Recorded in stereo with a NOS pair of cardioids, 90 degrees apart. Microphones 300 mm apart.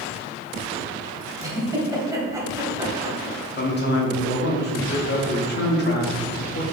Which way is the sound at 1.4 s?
10° right.